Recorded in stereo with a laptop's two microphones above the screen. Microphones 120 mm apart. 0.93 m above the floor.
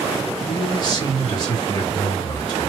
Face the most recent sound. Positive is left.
turn(degrees=35)  # may be behind; listen again after turning